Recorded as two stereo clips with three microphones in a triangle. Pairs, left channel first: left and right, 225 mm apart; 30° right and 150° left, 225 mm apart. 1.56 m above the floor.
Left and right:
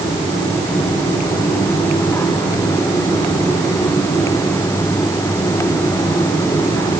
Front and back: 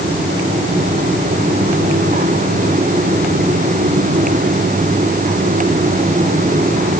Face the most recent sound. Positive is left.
No sound to turn to.